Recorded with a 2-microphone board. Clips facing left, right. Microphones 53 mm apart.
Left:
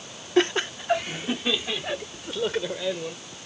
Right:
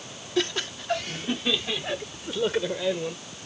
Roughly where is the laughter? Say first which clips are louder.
Left 5 dB; left.